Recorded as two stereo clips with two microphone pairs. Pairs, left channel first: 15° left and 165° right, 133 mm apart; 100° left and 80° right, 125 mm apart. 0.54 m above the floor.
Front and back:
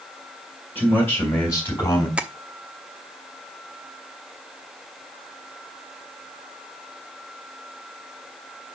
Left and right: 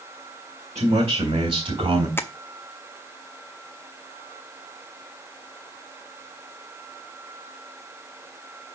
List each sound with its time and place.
0.8 s a man speaking: 60° right, 3 m; by 2.1 s 45° right, 3.5 m
2.2 s tapping: 135° left, 0.8 m